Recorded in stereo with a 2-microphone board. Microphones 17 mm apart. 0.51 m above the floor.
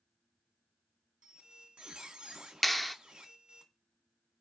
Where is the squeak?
75° right (ahead or behind), 1.4 m.